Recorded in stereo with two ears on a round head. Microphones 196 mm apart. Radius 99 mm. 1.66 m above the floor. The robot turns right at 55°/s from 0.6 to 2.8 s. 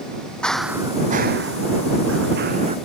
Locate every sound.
0.4 s running footsteps: 5° left (ahead or behind); by 2.8 s 25° right (ahead or behind)